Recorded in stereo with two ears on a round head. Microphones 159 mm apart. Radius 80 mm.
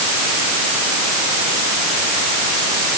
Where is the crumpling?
No crumpling in this recording.